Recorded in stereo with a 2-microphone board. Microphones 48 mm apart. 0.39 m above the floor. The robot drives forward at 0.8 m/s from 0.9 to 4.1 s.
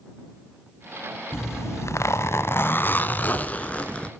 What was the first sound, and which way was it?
A zipper, 65° left (ahead or behind).